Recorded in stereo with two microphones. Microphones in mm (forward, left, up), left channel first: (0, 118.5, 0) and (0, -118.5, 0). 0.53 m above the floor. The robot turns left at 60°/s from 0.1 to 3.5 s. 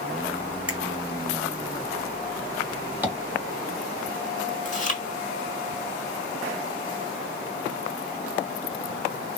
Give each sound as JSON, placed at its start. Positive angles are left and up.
{"t": 0.7, "sound": "a finger snap", "side_deg": -70, "distance_m": 1.7}
{"t": 3.0, "sound": "tapping", "side_deg": -10, "distance_m": 1.4}
{"t": 4.7, "sound": "chewing", "side_deg": 30, "distance_m": 1.3}